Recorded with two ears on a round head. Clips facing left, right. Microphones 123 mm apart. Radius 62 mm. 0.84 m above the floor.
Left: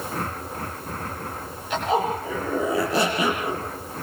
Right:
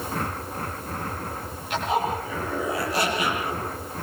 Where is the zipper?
80° left, 9 m.